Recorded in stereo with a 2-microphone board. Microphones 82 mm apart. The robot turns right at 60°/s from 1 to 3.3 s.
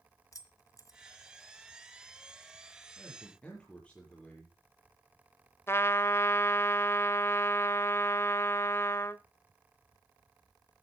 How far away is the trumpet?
About 0.6 m.